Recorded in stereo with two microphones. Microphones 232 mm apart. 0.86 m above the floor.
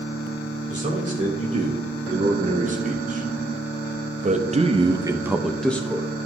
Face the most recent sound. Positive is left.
turn(degrees=15)  # may be behind; listen again after turning